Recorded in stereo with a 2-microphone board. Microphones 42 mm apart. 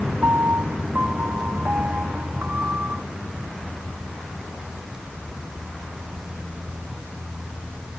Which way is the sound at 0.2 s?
45° right (ahead or behind).